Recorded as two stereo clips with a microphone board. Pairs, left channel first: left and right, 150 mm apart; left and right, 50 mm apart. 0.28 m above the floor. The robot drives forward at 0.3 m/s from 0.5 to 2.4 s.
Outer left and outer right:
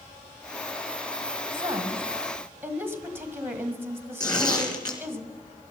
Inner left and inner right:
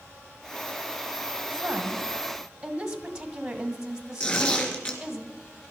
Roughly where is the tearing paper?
Left.